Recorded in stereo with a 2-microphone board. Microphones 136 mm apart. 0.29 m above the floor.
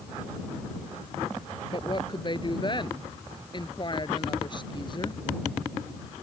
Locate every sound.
1.7 s a woman speaking: 35° left (ahead or behind)